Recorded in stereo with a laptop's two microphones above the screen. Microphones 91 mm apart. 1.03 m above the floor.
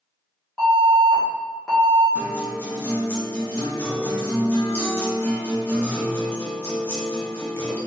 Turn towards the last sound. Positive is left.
turn(degrees=25)  # may be behind; listen again after turning